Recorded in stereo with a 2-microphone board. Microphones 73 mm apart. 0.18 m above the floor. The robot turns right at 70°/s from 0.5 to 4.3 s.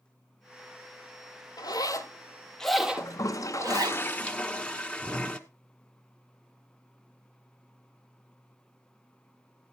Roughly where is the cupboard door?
No cupboard door in this recording.